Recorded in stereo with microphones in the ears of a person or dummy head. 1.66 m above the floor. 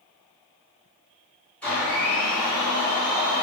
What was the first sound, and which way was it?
A blender, centre (ahead or behind).